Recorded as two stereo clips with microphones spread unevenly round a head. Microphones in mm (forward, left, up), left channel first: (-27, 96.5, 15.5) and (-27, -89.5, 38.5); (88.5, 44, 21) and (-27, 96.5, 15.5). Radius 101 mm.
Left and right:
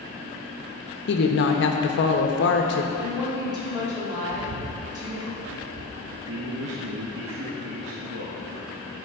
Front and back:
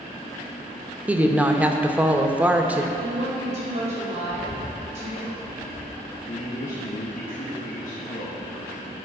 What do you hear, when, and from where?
1.1 s a woman speaking: 80° left, 0.9 m
3.0 s a woman speaking: 160° right, 2.5 m
4.3 s a bird: 80° right, 0.5 m
6.3 s a man speaking: 65° right, 1.1 m